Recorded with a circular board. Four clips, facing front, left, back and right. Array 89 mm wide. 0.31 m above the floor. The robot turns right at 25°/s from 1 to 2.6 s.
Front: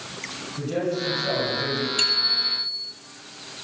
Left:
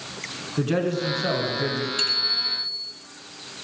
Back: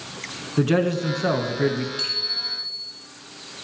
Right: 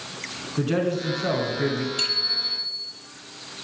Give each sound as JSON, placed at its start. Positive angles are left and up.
{"t": 0.6, "sound": "a man speaking", "azimuth_deg": 175, "distance_m": 3.5}
{"t": 2.0, "sound": "a bicycle bell", "azimuth_deg": -5, "distance_m": 7.5}